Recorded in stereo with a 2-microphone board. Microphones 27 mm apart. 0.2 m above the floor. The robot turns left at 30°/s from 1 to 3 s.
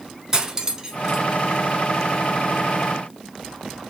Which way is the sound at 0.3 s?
15° right (ahead or behind).